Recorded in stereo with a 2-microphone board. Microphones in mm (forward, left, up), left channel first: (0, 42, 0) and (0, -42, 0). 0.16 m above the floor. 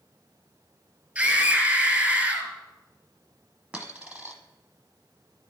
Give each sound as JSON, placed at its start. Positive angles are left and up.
{"t": 1.1, "sound": "a scream", "side_deg": -20, "distance_m": 2.0}
{"t": 3.7, "sound": "a dropped coin", "side_deg": -15, "distance_m": 1.0}